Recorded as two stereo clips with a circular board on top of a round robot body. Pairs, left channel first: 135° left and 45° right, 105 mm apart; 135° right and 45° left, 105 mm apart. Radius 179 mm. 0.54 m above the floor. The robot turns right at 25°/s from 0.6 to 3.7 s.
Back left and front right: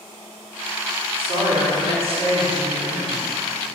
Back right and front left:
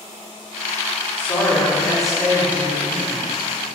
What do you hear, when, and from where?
1.2 s a woman speaking: 65° right, 1.6 m; by 3.3 s 15° right, 1.6 m